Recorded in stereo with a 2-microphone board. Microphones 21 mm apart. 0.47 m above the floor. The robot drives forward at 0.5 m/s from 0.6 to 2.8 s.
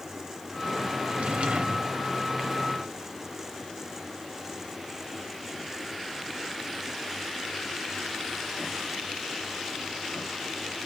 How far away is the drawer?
About 0.8 m.